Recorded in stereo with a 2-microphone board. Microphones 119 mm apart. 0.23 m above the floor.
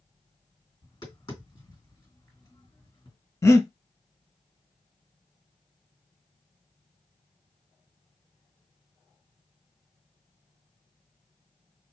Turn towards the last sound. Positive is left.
turn(degrees=25)  # may be behind; listen again after turning